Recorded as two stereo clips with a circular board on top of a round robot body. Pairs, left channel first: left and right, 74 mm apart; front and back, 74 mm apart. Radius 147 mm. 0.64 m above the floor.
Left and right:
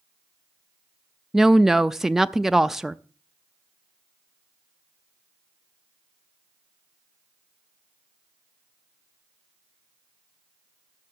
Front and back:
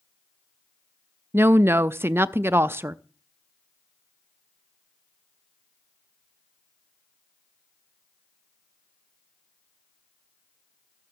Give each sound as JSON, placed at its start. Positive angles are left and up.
{"t": 1.3, "sound": "a woman speaking", "azimuth_deg": -170, "distance_m": 0.5}